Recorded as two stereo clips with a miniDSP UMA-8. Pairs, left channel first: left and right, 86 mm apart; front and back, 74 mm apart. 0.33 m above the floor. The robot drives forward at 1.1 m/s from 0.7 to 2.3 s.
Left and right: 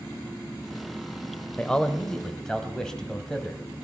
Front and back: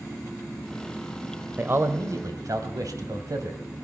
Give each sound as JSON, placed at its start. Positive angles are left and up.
{"t": 1.6, "sound": "a man speaking", "azimuth_deg": 155, "distance_m": 1.0}